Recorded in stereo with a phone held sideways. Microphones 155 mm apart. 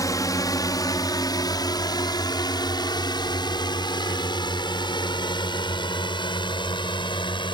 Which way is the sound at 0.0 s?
25° left (ahead or behind).